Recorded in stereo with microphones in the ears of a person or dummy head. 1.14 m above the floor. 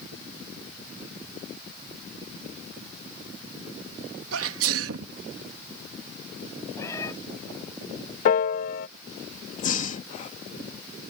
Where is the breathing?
45° left (ahead or behind).